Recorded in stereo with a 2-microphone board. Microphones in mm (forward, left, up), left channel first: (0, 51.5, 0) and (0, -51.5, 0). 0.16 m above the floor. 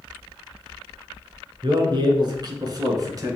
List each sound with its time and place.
1.6 s a man speaking: 50° right (ahead or behind), 2 m; by 3.4 s 35° right (ahead or behind), 1.8 m